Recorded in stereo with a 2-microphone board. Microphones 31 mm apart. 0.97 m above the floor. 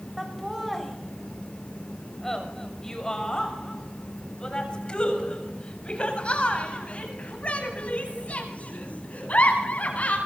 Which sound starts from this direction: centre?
Laughter, at 0.2 s.